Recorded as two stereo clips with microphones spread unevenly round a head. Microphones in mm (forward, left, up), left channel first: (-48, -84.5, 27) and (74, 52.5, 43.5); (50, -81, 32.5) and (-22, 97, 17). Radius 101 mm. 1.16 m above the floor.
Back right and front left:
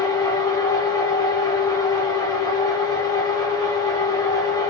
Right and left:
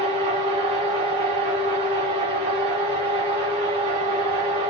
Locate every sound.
0.0 s a machine running: 165° left, 0.9 m